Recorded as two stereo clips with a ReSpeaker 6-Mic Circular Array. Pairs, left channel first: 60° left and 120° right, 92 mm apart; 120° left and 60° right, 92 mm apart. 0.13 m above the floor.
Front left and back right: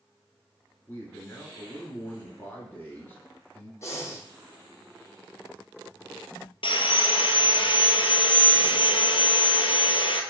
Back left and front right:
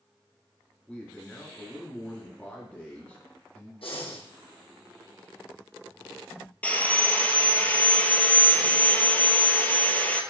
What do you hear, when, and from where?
0.9 s a man speaking: 65° left, 1.5 m
3.8 s breathing: 120° left, 1.9 m
6.6 s sawing: 45° left, 1.0 m